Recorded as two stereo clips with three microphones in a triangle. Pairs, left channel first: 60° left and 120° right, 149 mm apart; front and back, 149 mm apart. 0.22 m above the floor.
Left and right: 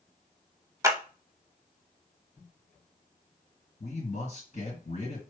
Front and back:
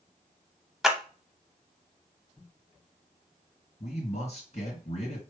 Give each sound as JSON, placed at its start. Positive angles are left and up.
{"t": 0.8, "sound": "a clap", "azimuth_deg": -95, "distance_m": 0.7}
{"t": 3.8, "sound": "a man speaking", "azimuth_deg": 35, "distance_m": 3.0}